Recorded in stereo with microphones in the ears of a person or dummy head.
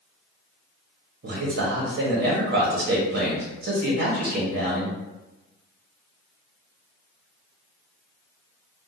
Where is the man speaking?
55° right (ahead or behind), 1.0 m.